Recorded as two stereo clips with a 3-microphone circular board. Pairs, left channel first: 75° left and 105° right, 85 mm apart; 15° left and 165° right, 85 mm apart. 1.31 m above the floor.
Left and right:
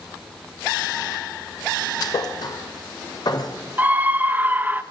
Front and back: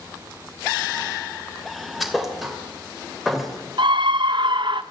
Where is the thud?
105° left, 2.5 m.